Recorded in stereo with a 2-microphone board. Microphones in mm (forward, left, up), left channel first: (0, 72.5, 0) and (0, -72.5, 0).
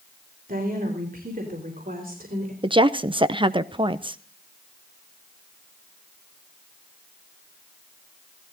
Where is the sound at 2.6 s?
35° right (ahead or behind), 0.7 m.